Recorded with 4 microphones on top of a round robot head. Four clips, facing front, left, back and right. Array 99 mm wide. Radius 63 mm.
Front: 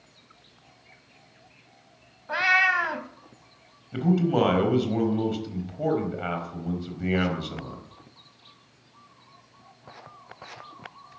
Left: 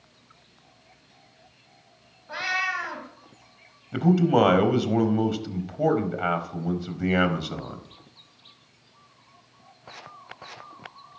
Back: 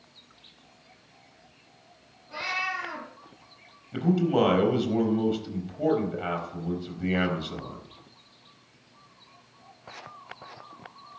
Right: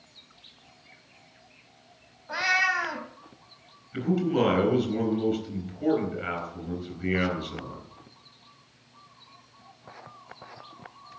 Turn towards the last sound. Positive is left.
turn(degrees=90)